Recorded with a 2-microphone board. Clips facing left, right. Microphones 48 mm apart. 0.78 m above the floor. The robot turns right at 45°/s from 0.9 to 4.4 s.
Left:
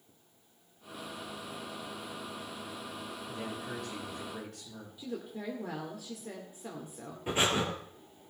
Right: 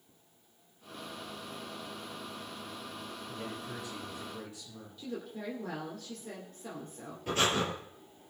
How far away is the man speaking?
About 6.5 m.